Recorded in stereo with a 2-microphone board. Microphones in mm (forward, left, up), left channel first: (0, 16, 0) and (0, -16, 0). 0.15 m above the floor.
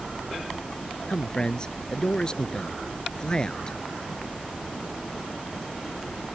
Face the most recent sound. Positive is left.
turn(degrees=25)  # may be behind; listen again after turning